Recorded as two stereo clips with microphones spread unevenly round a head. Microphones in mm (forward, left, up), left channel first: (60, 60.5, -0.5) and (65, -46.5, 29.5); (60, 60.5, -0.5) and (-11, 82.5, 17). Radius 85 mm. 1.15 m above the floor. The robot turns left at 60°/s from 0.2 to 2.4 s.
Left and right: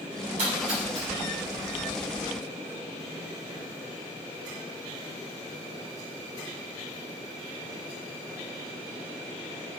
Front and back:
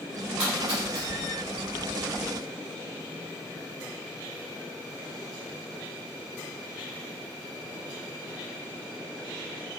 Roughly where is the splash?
Behind right.